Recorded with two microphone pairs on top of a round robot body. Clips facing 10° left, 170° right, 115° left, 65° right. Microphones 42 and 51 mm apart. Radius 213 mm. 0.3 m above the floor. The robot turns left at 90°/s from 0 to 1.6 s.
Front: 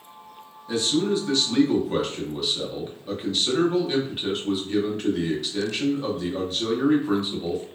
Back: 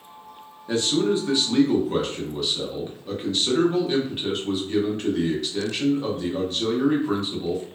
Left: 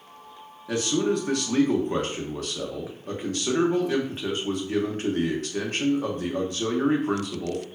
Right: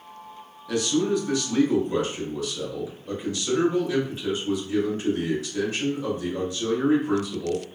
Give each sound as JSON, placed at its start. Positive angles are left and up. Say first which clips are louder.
{"t": 0.7, "sound": "a man speaking", "louder": "back 1 dB, right 1 dB", "azimuth_deg": 180, "distance_m": 1.1}